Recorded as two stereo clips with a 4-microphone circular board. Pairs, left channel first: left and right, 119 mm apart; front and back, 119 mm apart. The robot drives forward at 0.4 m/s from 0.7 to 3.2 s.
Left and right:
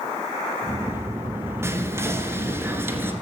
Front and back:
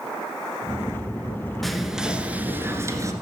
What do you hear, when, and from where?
1.6 s whispering: 85° right, 1.2 m; by 3.1 s 145° right, 1.3 m